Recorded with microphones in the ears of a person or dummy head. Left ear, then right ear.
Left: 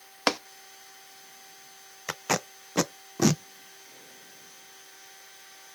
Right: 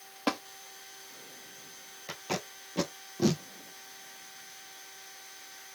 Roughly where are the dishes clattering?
I don't hear dishes clattering.